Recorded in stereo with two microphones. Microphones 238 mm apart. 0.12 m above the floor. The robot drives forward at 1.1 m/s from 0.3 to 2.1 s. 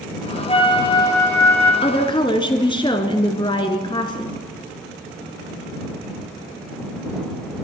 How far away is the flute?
About 1.0 m.